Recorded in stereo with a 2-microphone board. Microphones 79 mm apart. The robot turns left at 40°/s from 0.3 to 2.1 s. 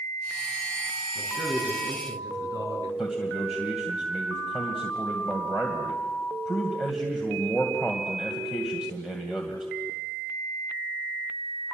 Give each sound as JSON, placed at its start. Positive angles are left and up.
{"t": 1.1, "sound": "a man speaking", "azimuth_deg": -20, "distance_m": 5.0}
{"t": 3.0, "sound": "a man speaking", "side_deg": -5, "distance_m": 2.5}